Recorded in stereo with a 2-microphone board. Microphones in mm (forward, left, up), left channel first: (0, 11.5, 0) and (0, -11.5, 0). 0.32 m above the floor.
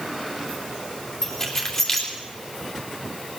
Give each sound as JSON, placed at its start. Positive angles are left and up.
{"t": 1.2, "sound": "keys jangling", "side_deg": 25, "distance_m": 3.0}